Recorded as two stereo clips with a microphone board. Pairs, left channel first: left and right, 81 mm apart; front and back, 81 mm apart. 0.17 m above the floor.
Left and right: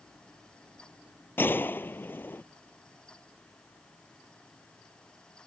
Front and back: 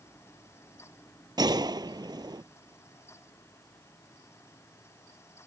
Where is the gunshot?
155° left.